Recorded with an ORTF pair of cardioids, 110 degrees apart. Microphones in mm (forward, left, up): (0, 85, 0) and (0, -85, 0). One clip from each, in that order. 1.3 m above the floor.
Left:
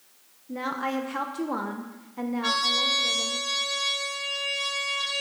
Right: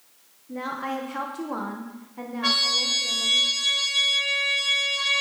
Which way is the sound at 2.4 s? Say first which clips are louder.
Right 2 dB; 30° right.